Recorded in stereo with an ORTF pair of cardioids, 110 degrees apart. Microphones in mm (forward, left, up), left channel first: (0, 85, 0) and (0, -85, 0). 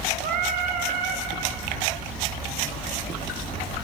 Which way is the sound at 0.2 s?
60° right.